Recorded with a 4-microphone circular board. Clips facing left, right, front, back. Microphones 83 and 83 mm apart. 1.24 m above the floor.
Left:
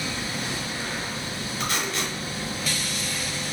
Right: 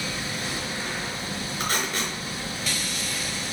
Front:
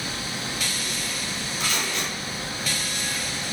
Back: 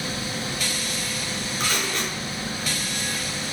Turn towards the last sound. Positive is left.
turn(degrees=-130)